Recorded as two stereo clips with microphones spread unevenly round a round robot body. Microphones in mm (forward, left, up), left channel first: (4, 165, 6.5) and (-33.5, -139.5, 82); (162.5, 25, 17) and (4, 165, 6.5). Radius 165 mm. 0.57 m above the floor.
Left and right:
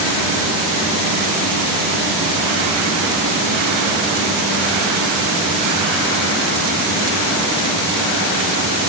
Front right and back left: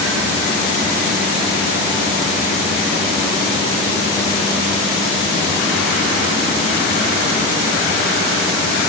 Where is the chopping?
No chopping in this recording.